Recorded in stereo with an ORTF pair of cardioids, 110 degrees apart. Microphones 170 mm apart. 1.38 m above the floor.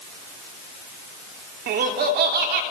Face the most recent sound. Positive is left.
turn(degrees=-70)